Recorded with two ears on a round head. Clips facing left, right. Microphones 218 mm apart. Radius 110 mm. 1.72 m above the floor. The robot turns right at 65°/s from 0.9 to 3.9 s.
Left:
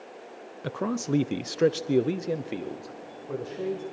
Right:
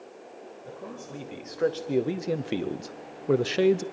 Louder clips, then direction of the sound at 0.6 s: Left 13 dB; 95° left.